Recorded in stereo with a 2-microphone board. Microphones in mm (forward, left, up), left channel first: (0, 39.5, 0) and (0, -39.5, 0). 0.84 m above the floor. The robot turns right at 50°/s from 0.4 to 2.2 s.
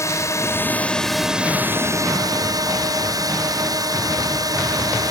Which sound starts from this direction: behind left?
A drone, at 0.0 s.